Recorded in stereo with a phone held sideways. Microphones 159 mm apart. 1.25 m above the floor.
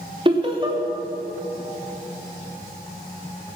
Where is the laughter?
35° right (ahead or behind), 3 m.